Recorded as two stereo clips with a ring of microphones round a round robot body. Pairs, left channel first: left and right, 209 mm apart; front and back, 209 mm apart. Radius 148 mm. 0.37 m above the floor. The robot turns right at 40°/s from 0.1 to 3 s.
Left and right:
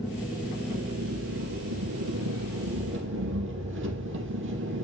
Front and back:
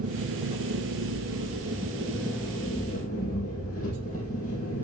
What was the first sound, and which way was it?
An engine running, straight behind.